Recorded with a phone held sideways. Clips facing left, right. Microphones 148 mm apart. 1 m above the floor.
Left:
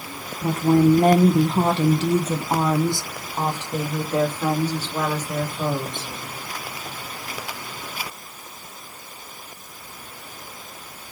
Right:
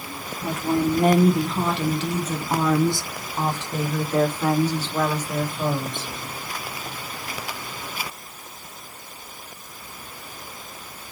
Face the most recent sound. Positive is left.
turn(degrees=5)  # may be behind; listen again after turning